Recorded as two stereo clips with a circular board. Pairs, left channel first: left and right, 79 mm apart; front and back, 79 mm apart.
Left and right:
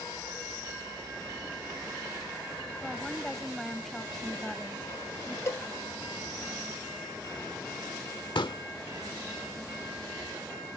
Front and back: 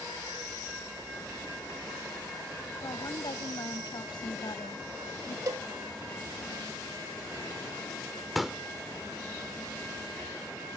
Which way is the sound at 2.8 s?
5° left.